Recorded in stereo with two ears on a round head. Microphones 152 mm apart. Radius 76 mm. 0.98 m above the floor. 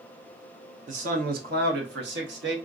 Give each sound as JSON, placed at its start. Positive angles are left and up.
{"t": 0.9, "sound": "a man speaking", "side_deg": -45, "distance_m": 0.8}